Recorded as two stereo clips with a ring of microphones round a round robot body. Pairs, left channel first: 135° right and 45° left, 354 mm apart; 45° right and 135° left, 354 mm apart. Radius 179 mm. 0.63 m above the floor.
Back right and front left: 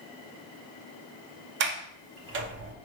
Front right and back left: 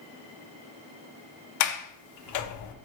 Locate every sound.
1.6 s a sliding door: 10° right, 0.5 m